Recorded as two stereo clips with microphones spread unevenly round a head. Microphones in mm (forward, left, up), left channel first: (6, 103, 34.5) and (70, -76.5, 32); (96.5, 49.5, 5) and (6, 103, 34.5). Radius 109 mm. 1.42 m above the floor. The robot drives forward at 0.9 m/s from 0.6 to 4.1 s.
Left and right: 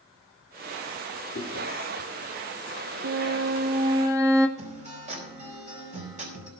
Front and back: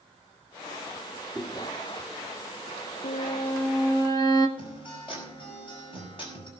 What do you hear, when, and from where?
1.4 s chewing: 70° left, 3 m; by 1.7 s 75° left, 3 m
3.0 s a violin: 75° right, 0.6 m; by 4.5 s 145° right, 1.0 m
4.6 s a guitar: 130° right, 5 m